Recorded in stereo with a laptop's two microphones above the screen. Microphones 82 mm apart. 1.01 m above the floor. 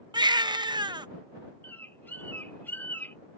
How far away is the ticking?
I don't hear ticking.